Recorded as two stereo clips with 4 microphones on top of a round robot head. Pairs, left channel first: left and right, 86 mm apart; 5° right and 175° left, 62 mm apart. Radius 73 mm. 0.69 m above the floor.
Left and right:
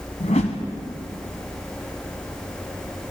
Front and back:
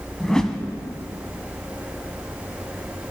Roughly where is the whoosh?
Left.